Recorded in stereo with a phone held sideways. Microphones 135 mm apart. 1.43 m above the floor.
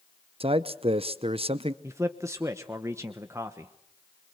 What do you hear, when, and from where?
0.4 s a man speaking: 50° right (ahead or behind), 0.8 m
1.8 s a man speaking: 20° right (ahead or behind), 1.1 m